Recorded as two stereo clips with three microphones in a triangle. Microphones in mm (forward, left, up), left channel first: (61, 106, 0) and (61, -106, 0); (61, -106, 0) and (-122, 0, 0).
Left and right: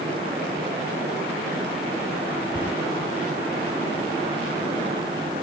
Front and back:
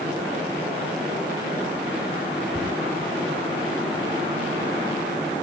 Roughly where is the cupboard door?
Behind left.